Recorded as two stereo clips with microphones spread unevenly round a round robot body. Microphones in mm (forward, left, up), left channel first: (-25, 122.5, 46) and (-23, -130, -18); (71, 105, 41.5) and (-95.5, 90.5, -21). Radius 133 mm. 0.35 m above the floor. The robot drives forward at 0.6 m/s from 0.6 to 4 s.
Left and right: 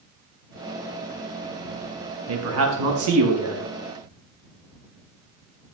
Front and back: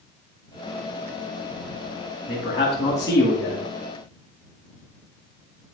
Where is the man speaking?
70° right, 4.5 m; by 3.7 s 85° right, 4 m.